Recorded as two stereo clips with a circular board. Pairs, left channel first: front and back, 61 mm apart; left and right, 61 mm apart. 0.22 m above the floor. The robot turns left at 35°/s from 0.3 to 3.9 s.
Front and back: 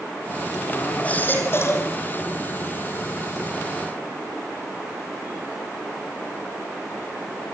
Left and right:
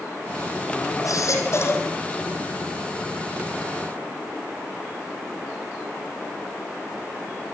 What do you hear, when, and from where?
1.0 s a baby crying: 70° left, 4 m; by 1.9 s 40° left, 4 m